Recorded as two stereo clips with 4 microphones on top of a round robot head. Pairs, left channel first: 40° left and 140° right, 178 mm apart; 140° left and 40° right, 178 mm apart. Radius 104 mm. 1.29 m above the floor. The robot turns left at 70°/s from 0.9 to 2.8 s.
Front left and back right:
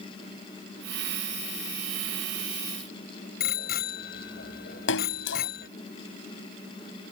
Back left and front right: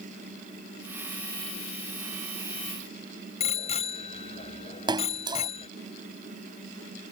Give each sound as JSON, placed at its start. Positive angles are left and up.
{"t": 3.4, "sound": "a bicycle bell", "azimuth_deg": 80}
{"t": 4.9, "sound": "a splash", "azimuth_deg": 25}